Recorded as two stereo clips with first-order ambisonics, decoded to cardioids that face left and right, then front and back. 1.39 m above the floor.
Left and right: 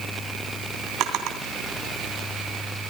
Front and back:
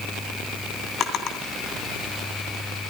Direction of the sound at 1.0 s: 55° right.